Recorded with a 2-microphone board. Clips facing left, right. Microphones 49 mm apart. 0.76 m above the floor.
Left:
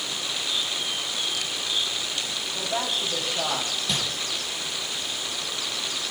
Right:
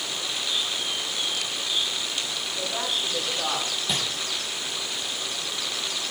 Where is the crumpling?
Centre (ahead or behind), 3.5 m.